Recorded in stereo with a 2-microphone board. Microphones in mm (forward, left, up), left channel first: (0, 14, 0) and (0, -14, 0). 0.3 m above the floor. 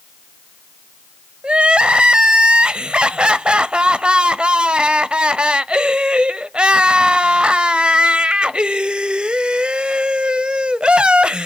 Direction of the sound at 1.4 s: 40° right (ahead or behind).